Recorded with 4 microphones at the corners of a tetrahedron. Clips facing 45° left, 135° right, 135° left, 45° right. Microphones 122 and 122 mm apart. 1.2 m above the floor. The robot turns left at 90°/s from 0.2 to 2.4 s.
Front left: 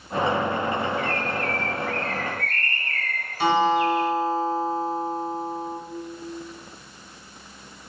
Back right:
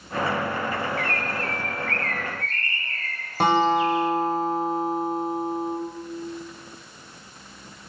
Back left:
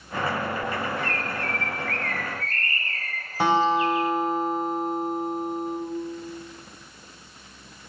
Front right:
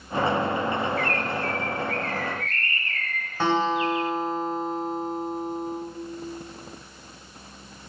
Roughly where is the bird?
Behind right.